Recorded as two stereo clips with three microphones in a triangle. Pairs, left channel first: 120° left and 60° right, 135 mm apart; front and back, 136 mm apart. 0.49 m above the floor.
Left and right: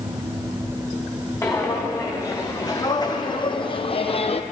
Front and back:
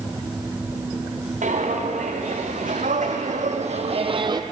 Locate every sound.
1.4 s footsteps: 170° right, 2 m; by 4.4 s 130° left, 0.7 m